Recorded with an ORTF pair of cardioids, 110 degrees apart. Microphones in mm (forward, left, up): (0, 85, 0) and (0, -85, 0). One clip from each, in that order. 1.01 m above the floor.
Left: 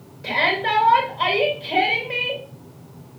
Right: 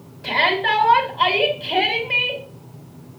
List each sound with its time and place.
0.2 s a shout: 10° right, 4.5 m